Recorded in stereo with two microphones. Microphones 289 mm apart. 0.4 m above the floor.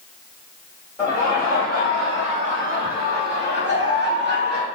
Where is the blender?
No blender in this recording.